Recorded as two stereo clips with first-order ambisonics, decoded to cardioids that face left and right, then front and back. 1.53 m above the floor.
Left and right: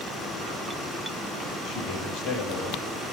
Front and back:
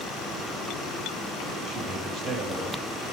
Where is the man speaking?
125° left, 6 m.